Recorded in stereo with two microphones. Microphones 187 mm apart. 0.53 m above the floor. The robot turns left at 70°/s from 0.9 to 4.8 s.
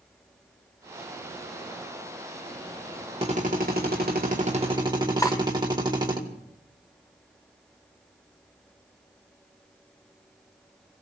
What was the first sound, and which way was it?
A drill, 40° right.